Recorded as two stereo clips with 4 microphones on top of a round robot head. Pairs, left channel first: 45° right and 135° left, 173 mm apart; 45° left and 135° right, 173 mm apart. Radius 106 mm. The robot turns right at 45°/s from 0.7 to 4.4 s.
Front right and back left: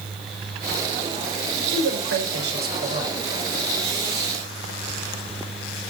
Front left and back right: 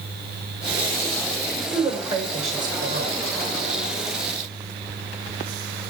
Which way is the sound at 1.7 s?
130° left.